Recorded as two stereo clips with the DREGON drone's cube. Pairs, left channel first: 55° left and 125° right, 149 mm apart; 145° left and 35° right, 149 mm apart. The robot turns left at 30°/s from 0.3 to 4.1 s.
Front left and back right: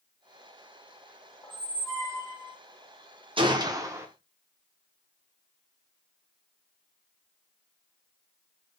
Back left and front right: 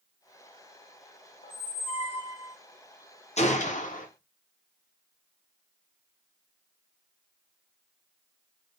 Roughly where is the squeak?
Behind left.